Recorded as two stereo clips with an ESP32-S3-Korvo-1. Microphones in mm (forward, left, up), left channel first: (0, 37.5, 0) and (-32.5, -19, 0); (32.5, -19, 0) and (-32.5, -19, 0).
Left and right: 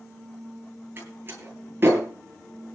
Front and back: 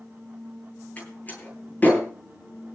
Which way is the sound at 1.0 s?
65° right.